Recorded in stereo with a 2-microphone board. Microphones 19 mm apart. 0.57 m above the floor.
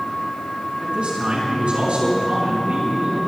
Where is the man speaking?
80° right, 6 m.